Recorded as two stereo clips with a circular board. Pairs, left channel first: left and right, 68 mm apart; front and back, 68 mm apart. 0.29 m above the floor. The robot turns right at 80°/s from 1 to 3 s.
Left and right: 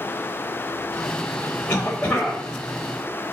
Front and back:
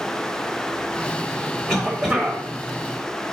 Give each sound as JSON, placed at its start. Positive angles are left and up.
{"t": 1.7, "sound": "a cough", "azimuth_deg": 80, "distance_m": 0.9}